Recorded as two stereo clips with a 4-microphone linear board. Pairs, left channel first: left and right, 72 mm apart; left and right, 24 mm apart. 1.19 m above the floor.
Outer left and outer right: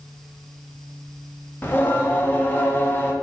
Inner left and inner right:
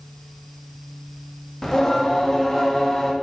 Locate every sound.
1.6 s singing: 30° left (ahead or behind), 0.8 m